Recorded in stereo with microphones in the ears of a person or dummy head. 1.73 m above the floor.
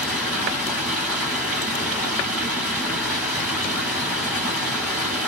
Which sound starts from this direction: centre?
Running water, at 0.0 s.